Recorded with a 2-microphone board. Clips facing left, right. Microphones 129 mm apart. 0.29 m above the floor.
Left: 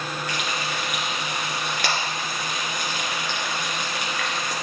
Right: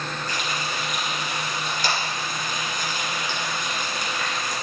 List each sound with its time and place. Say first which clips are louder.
0.3 s frying: even; 70° left (ahead or behind), 2.5 m